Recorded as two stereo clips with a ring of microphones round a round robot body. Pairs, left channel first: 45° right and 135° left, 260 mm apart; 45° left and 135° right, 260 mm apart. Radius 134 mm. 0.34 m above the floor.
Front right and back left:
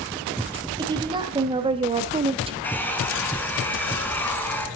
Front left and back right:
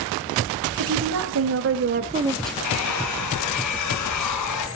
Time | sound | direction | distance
0.8 | a woman speaking | 150° right | 3 m
2.6 | a hair dryer | 40° left | 3.5 m